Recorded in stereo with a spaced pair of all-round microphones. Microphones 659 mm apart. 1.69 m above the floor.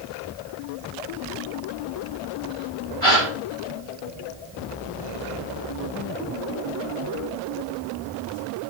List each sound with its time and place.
3.0 s a gasp: 50° left (ahead or behind), 8.5 m